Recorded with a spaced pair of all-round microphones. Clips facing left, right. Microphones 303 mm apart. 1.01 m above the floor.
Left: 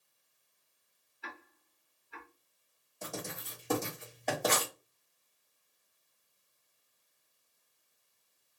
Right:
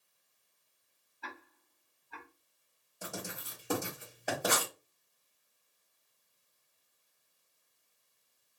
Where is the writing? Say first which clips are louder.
Left 1 dB; 10° right (ahead or behind), 1.9 m.